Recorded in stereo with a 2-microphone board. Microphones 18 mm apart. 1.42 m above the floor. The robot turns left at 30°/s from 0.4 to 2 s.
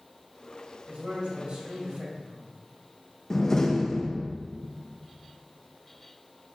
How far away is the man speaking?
About 3 m.